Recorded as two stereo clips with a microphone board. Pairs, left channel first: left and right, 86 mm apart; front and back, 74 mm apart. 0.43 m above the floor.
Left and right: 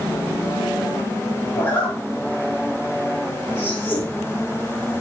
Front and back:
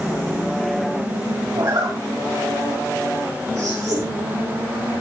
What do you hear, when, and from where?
1.6 s a zipper: 155° left, 4.5 m